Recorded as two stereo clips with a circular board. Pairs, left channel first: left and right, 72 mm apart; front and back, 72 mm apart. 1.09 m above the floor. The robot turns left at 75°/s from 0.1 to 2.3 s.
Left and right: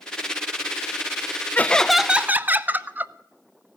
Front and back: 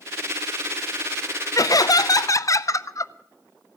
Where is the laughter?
30° left, 0.5 m; by 3.1 s 30° right, 0.5 m.